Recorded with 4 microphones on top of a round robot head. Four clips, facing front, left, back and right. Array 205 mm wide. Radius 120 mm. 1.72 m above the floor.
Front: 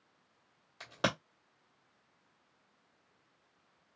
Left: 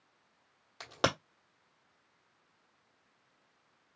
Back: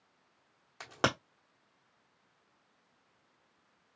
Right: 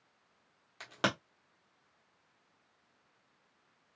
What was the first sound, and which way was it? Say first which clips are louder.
A crack: left 2 dB, back 2 dB; 155° left.